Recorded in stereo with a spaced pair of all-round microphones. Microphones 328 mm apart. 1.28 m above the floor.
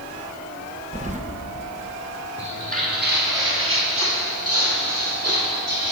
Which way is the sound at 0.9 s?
25° right (ahead or behind).